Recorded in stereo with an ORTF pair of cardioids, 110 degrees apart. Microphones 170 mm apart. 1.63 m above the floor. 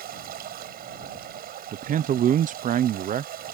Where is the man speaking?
50° right.